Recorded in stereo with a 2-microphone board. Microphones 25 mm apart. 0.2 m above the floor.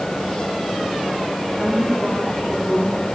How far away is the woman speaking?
About 8.5 m.